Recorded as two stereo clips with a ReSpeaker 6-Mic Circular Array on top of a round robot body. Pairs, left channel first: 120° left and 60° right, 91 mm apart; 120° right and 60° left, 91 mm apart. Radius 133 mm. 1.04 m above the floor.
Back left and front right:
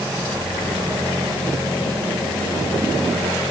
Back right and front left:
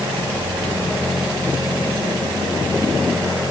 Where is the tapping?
I don't hear tapping.